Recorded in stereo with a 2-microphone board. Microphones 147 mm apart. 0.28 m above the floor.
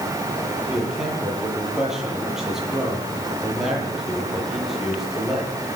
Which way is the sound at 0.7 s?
5° right (ahead or behind).